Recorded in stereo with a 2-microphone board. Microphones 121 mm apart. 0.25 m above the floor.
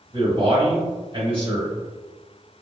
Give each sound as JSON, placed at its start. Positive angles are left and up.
{"t": 0.1, "sound": "a man speaking", "side_deg": -45, "distance_m": 1.2}